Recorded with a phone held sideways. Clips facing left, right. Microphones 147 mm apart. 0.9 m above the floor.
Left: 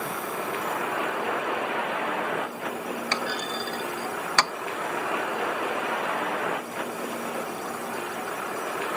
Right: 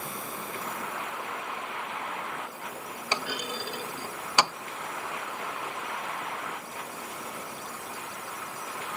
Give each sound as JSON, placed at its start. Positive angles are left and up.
{"t": 0.0, "sound": "a vehicle", "side_deg": 75}
{"t": 3.1, "sound": "a clunk", "side_deg": -15}